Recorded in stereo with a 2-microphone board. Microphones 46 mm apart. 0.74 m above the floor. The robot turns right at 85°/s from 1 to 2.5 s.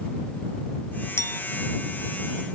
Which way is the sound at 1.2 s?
75° left (ahead or behind).